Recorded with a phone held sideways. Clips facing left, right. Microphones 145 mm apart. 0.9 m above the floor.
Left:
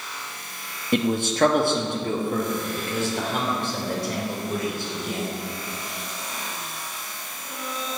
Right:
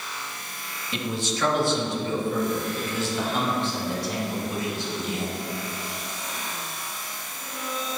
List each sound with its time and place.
0.9 s a man speaking: 50° left (ahead or behind), 1.2 m; by 5.3 s 55° left (ahead or behind), 5 m